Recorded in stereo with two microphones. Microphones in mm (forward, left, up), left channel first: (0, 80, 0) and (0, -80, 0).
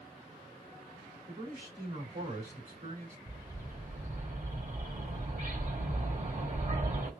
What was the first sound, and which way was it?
A man speaking, 50° right (ahead or behind).